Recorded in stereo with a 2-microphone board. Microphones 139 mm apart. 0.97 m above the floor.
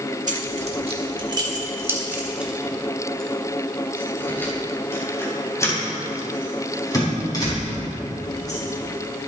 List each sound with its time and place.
0.3 s keys jangling: 65° right (ahead or behind), 1.5 m; by 8.6 s 30° left (ahead or behind), 6 m